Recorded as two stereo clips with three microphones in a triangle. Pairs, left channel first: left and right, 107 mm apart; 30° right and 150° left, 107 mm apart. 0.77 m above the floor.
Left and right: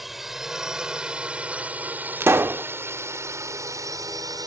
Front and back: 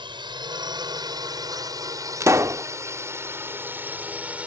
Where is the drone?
Straight behind; by 4.5 s 135° right.